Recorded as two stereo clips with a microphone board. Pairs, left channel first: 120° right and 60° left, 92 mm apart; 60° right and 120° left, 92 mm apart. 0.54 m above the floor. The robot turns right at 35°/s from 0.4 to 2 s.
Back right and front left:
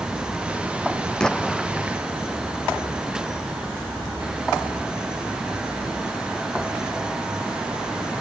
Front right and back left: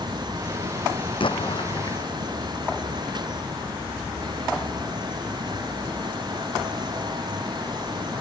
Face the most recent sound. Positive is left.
turn(degrees=-10)